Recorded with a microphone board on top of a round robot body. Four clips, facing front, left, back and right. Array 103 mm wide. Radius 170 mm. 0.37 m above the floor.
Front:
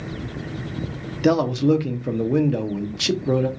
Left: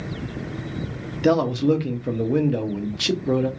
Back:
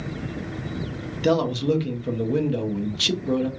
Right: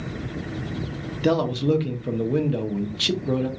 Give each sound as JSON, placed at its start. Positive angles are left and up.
{"t": 1.2, "sound": "a man speaking", "azimuth_deg": 30, "distance_m": 0.8}